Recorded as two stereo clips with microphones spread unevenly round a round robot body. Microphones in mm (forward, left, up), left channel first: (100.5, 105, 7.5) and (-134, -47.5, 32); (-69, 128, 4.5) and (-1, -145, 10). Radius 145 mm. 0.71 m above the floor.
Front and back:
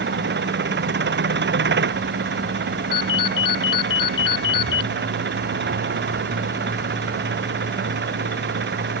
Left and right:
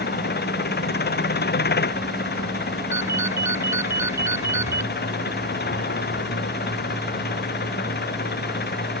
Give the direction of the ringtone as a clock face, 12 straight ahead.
12 o'clock.